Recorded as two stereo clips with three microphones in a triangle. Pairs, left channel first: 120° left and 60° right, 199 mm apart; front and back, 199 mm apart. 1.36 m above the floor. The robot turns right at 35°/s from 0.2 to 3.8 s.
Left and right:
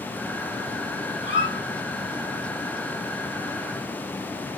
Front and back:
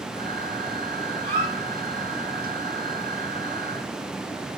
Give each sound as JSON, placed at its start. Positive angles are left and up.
{"t": 1.2, "sound": "a squeak", "azimuth_deg": 140, "distance_m": 4.5}